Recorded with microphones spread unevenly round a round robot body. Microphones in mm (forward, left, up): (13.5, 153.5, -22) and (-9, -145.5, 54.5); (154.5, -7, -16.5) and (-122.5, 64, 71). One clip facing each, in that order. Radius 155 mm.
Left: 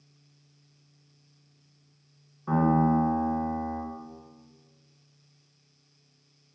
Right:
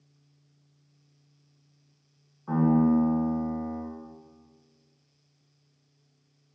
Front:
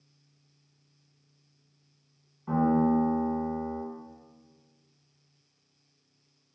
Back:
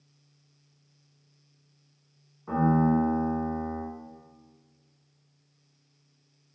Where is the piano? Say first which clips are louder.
Right 2 dB, even; 45° left, 1.4 m.